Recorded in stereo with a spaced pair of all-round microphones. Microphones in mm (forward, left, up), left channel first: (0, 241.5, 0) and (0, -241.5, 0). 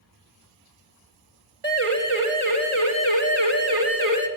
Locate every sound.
1.6 s a siren: 85° right, 4.5 m; by 4.3 s 30° right (ahead or behind), 3 m